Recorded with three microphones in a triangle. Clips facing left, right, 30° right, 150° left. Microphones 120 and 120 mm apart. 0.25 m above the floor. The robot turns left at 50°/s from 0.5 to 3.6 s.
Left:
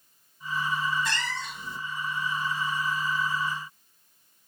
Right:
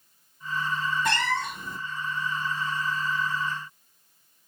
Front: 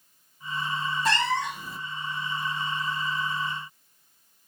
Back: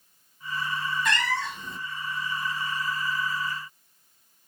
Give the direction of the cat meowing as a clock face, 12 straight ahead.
3 o'clock.